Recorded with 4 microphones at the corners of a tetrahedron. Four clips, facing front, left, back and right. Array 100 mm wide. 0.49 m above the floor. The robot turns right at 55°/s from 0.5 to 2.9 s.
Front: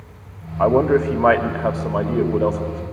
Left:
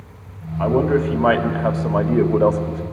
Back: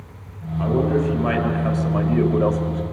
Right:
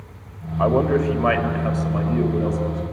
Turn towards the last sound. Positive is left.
turn(degrees=110)